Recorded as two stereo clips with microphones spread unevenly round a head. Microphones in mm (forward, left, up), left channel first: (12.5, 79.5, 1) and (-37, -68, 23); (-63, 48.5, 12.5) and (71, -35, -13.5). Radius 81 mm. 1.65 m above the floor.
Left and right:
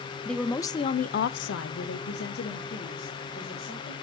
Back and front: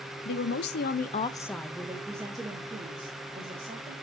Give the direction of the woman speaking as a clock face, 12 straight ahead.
7 o'clock.